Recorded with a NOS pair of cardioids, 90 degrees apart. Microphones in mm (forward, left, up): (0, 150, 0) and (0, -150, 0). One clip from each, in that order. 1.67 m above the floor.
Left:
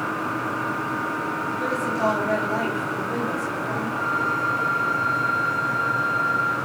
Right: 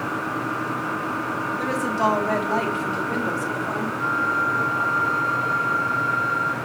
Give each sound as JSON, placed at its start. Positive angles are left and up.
{"t": 1.6, "sound": "a woman speaking", "azimuth_deg": -45, "distance_m": 4.0}
{"t": 4.0, "sound": "a flute", "azimuth_deg": 25, "distance_m": 5.5}